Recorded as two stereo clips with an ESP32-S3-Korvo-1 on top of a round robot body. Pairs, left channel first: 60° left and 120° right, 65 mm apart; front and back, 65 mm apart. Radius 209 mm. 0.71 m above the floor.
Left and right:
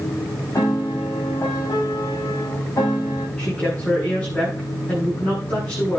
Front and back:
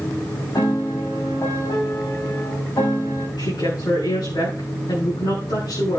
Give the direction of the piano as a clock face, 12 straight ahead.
11 o'clock.